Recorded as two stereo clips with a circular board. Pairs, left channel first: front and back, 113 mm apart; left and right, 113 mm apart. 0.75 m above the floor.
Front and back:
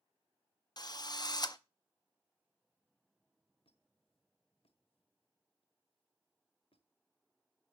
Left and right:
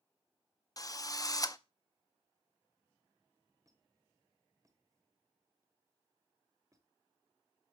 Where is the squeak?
30° right, 1.3 m.